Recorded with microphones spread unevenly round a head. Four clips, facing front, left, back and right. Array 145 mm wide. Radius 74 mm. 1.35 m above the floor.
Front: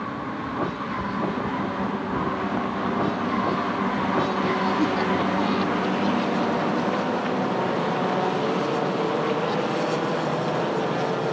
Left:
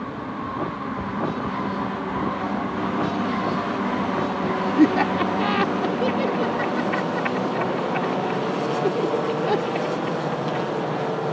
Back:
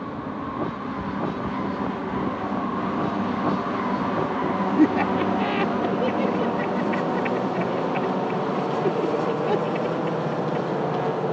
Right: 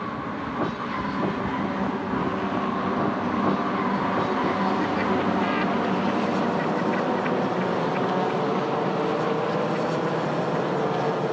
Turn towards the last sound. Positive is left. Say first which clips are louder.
# left 6 dB, back 3 dB
turn(degrees=125)